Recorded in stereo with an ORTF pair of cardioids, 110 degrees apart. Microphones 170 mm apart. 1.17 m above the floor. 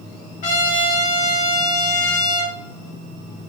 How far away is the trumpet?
About 2.5 m.